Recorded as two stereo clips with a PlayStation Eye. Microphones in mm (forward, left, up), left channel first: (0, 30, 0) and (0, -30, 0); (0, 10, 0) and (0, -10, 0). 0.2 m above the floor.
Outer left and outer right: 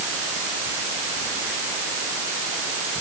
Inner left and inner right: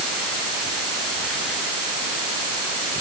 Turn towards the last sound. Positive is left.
No sound to turn to.